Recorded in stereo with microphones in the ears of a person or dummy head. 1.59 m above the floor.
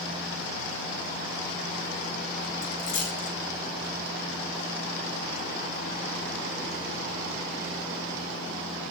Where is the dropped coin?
80° left, 5.5 m.